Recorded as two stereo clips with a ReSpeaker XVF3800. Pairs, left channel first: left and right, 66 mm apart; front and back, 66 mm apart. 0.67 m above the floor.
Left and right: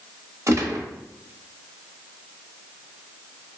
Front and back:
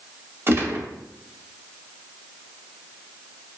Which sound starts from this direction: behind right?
A gunshot, at 0.5 s.